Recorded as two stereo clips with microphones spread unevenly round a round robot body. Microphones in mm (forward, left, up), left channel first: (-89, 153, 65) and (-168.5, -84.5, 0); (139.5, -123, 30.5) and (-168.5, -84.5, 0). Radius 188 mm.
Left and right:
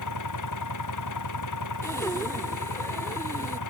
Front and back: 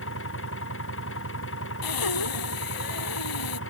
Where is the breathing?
10° right.